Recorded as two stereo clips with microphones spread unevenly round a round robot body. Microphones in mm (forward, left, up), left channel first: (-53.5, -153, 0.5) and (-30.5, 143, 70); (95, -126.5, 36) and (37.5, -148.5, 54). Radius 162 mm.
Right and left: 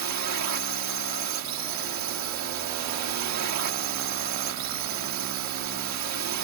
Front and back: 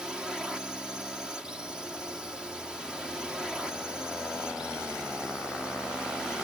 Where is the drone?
110° left.